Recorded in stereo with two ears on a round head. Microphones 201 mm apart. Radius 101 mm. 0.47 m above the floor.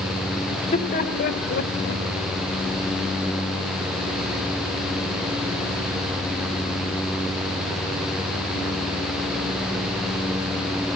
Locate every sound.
0.5 s laughter: 25° left (ahead or behind), 1.6 m; by 2.0 s 50° left (ahead or behind), 2 m